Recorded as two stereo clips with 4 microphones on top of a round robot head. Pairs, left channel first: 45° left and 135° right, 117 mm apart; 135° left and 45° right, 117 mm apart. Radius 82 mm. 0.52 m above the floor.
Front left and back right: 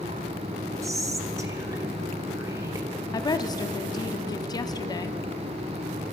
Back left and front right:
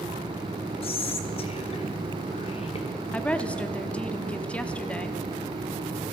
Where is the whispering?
165° left, 1.6 m.